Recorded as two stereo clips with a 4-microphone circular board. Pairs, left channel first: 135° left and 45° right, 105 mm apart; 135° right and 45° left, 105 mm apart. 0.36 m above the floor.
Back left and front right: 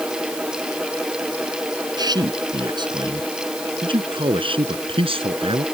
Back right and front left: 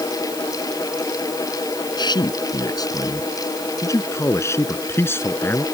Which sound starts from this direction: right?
A man speaking, at 2.0 s.